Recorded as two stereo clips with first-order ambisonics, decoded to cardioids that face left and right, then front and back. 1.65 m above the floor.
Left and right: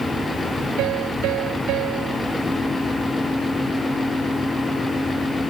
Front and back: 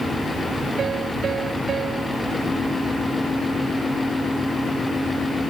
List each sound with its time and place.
0.8 s a piano: 115° right